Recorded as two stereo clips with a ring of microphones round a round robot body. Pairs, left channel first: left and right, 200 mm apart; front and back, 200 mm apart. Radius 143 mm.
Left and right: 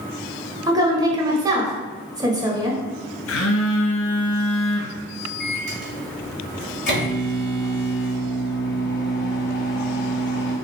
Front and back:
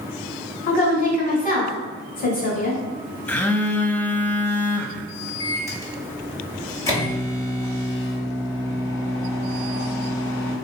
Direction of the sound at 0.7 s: 25° right.